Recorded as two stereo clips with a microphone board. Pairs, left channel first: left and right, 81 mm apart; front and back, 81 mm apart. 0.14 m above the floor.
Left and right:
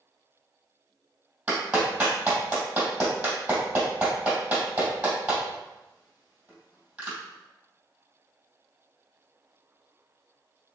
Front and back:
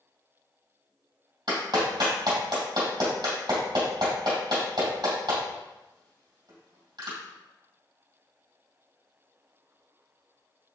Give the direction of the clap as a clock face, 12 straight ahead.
5 o'clock.